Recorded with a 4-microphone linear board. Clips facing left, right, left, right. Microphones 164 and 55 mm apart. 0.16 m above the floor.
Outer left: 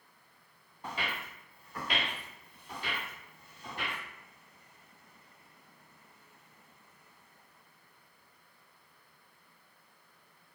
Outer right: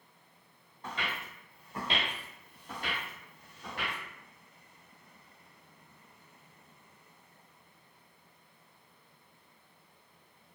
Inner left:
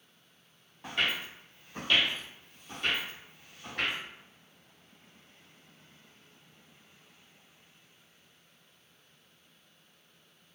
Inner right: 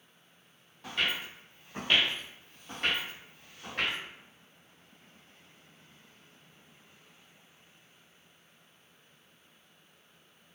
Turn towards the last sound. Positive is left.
turn(degrees=-70)  # may be behind; listen again after turning